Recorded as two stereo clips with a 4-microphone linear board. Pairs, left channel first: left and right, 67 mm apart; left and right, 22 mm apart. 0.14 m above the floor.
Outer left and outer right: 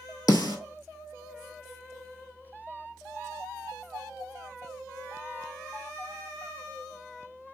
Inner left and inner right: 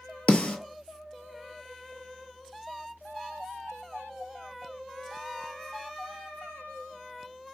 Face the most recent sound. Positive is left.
turn(degrees=65)  # may be behind; listen again after turning